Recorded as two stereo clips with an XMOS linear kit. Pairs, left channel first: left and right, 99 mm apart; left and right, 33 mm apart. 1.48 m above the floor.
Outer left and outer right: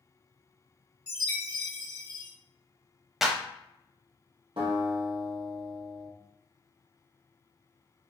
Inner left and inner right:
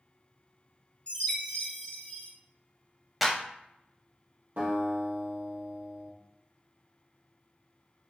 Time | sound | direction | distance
1.1 | a chime | 40° left (ahead or behind) | 1.1 m
3.2 | a clap | 5° right (ahead or behind) | 0.6 m
4.6 | a guitar | 60° right (ahead or behind) | 1.2 m